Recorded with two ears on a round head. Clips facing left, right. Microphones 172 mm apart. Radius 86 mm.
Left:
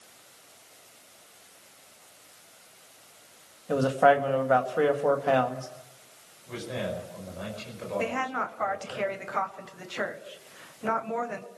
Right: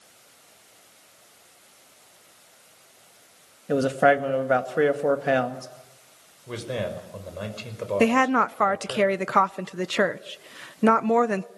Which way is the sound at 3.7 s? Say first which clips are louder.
Right 1 dB; 25° right (ahead or behind).